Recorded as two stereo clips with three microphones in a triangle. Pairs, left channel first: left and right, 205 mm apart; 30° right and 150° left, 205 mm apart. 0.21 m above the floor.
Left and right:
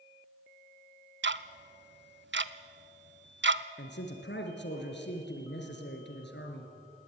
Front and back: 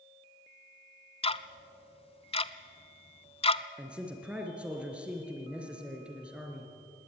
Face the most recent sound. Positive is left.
turn(degrees=65)